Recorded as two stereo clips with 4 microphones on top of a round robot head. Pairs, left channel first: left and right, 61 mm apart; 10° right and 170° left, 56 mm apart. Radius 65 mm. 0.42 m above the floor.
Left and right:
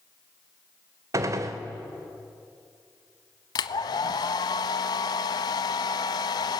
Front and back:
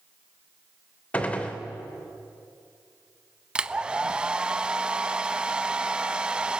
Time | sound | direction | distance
1.1 | a gunshot | 75° right | 1.5 m
3.5 | a hair dryer | 100° left | 0.6 m